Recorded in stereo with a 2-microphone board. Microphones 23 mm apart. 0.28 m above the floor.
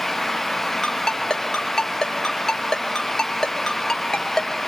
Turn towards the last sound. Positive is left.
turn(degrees=25)  # may be behind; listen again after turning